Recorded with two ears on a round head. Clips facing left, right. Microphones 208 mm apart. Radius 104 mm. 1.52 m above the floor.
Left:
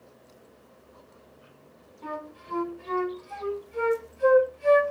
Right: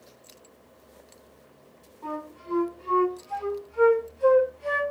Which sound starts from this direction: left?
A flute, at 2.0 s.